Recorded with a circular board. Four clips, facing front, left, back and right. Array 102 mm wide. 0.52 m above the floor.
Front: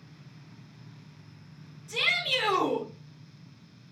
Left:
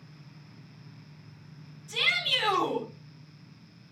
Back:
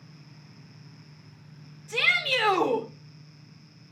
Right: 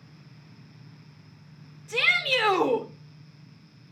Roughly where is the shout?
Behind right.